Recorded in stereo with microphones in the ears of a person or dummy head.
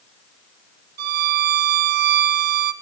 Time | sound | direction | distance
1.0 | a violin | 55° right (ahead or behind) | 0.7 m